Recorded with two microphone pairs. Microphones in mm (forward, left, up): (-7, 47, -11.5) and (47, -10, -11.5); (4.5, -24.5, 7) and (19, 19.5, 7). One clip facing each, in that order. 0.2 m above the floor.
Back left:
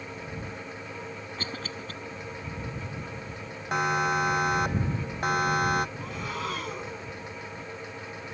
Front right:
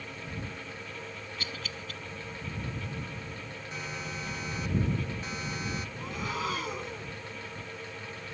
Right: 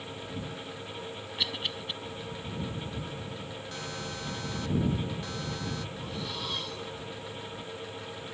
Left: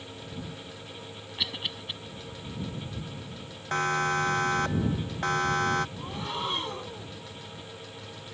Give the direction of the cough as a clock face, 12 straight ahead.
7 o'clock.